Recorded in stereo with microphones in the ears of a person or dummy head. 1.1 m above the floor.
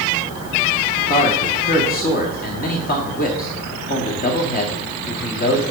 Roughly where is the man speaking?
Left.